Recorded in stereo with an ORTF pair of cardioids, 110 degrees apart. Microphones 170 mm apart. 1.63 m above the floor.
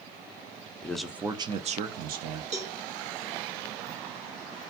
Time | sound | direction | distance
0.8 | a man speaking | 10° left | 0.5 m
2.5 | a cowbell | 45° right | 1.0 m